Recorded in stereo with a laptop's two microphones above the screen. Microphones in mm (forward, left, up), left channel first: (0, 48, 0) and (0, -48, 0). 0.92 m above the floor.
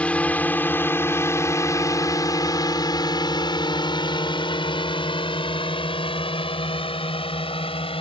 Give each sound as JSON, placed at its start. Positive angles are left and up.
{"t": 0.0, "sound": "a drone", "side_deg": 15}